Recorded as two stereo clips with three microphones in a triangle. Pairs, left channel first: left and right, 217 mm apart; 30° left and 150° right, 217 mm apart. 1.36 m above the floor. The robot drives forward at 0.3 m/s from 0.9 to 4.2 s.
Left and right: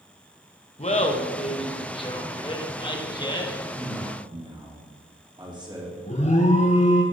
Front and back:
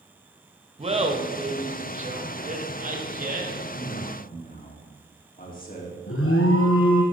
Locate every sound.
0.8 s laughter: 150° left, 1.4 m; by 3.5 s 160° left, 2 m
3.7 s a man speaking: 20° right, 3 m
6.1 s an alarm: 35° left, 1.3 m